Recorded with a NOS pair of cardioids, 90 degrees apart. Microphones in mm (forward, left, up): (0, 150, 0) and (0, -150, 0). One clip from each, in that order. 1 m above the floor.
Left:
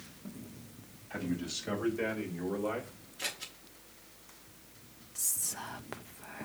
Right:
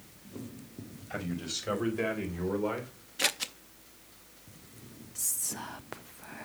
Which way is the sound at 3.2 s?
55° right.